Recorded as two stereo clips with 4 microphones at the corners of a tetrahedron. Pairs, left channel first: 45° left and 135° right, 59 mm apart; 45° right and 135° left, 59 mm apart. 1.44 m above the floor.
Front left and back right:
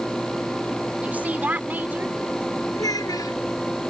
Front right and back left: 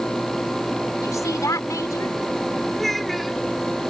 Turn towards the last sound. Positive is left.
turn(degrees=45)